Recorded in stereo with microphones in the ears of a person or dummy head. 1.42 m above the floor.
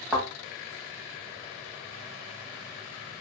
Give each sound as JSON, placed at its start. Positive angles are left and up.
{"t": 0.1, "sound": "a thud", "side_deg": -5, "distance_m": 0.9}